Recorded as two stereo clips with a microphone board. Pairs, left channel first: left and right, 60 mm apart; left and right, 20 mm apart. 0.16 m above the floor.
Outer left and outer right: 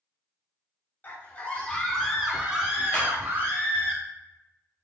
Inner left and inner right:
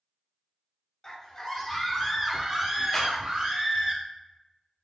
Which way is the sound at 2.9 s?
15° left (ahead or behind).